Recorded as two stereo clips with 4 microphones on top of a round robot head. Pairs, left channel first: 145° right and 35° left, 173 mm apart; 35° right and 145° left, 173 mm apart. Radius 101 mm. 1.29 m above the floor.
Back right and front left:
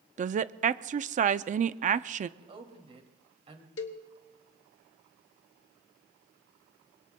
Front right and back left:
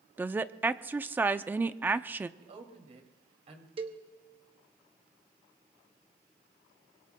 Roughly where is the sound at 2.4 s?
Left.